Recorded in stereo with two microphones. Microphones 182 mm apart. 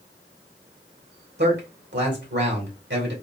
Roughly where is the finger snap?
No finger snap in this recording.